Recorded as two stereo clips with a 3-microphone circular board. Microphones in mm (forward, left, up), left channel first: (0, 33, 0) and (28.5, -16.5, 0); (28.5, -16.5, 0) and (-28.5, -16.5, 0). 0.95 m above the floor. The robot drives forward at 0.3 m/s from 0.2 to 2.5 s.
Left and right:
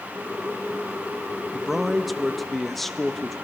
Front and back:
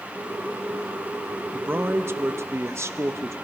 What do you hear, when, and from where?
1.5 s a man speaking: 140° right, 0.8 m; by 3.4 s 155° right, 1.0 m